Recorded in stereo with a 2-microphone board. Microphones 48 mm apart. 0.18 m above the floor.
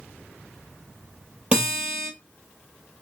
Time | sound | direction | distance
1.5 | a guitar | 20° right (ahead or behind) | 1.9 m